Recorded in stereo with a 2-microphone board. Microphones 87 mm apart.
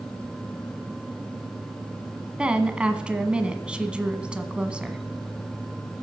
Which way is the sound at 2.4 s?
10° right (ahead or behind).